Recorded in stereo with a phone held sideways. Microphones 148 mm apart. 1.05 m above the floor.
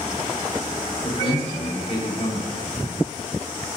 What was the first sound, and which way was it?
A man speaking, 50° left (ahead or behind).